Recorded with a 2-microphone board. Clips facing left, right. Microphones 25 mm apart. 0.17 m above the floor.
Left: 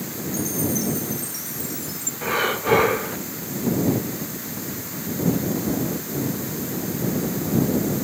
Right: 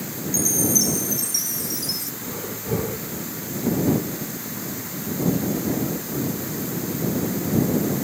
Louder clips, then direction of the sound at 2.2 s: Left 10 dB; 75° left (ahead or behind).